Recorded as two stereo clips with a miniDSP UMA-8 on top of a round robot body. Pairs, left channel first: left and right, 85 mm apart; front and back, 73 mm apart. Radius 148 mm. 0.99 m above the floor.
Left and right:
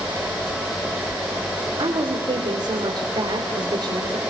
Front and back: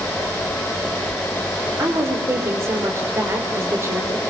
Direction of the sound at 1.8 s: 125° right.